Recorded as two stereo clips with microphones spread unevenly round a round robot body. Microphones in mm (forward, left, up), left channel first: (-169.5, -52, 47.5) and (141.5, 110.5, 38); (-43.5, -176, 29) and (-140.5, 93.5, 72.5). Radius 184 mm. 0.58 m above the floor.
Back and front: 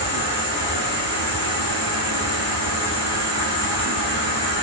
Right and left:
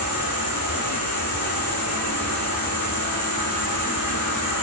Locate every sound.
0.0 s an insect: 85° right, 9 m